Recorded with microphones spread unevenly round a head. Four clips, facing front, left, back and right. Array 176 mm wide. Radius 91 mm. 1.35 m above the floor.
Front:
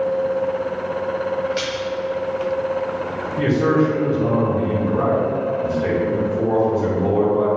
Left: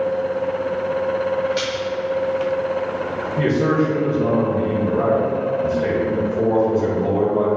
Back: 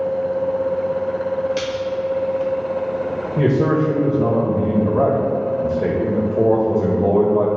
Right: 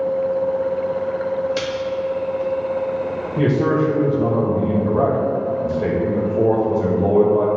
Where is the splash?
130° right, 2.0 m.